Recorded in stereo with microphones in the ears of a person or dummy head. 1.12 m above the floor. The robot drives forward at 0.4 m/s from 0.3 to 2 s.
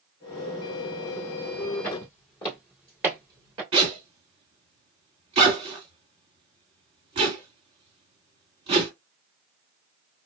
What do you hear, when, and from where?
1.8 s footsteps: 35° left (ahead or behind), 1.3 m; by 3.6 s 25° right (ahead or behind), 1.3 m
3.7 s a zipper: 30° right (ahead or behind), 1.4 m